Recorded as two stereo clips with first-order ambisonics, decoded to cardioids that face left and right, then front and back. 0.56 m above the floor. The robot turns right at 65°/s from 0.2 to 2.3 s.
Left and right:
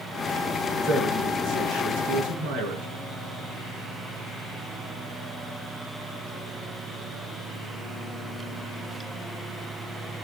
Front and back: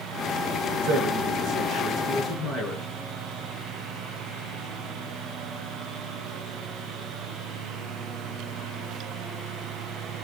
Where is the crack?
No crack in this recording.